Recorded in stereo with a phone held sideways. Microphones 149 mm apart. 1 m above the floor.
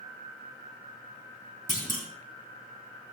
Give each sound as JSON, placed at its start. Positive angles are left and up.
{"t": 1.7, "sound": "a clunk", "side_deg": 70, "distance_m": 3.0}